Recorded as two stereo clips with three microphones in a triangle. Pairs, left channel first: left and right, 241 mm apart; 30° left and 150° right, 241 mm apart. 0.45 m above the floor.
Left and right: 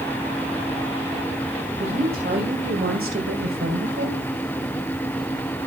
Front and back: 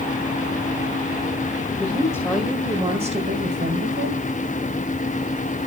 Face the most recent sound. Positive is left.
turn(degrees=-125)